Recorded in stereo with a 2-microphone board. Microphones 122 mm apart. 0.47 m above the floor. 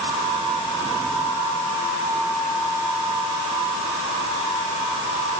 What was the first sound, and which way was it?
Only background noise.